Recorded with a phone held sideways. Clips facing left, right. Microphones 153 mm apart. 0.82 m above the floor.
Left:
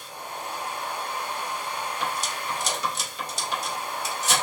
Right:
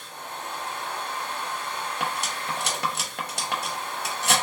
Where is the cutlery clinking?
65° right (ahead or behind), 0.7 m.